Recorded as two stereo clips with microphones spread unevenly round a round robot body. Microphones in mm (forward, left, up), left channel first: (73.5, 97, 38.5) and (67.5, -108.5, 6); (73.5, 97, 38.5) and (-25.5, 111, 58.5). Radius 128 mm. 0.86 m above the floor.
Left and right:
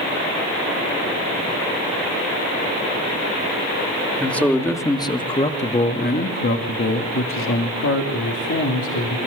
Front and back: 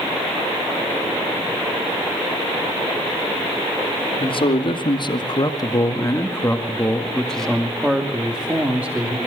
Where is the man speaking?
Straight ahead, 2.5 m; by 9.2 s 95° left, 3 m.